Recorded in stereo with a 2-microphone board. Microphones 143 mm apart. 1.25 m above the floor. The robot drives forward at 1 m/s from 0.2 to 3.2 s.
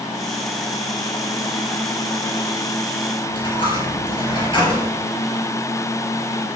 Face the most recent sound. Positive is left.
turn(degrees=40)  # may be behind; listen again after turning